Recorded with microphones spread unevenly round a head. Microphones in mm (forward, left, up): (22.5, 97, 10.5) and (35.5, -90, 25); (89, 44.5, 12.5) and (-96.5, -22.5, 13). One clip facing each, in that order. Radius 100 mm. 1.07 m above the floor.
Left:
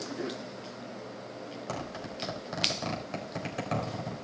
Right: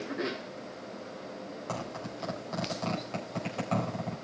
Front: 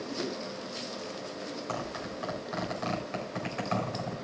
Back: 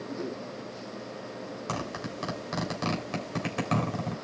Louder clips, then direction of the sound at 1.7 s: Right 1 dB, back 1 dB; 170° left.